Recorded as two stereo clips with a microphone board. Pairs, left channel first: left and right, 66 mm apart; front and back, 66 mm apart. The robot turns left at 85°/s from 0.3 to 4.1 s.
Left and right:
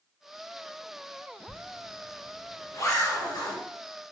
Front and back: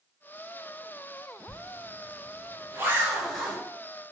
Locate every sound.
1.5 s a zipper: 120° right, 1.4 m; by 3.6 s 60° left, 1.4 m